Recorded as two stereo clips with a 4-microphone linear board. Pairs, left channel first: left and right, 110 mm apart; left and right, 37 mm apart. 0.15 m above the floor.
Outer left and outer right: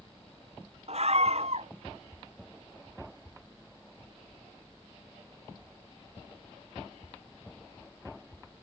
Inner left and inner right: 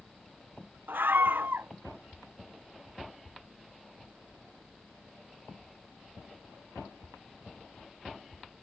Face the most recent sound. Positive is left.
turn(degrees=-70)  # may be behind; listen again after turning